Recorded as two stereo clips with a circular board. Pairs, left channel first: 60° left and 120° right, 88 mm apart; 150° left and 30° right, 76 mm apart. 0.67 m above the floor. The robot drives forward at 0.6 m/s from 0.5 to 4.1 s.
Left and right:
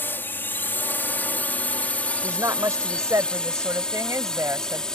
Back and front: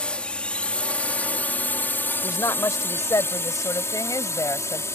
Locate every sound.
0.0 s a drone: 90° left; by 5.0 s 135° left
2.2 s a woman speaking: 170° right; by 4.8 s 175° right